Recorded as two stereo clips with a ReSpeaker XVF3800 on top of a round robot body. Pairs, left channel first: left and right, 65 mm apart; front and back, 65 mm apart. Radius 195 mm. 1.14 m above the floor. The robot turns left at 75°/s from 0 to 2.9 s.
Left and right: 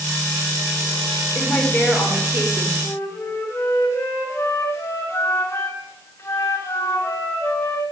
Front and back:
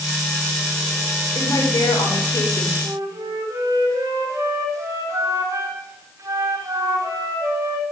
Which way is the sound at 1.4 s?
55° left.